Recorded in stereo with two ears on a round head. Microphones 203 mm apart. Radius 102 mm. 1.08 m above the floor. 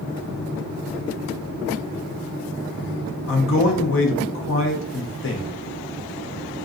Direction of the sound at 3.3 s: 55° left (ahead or behind).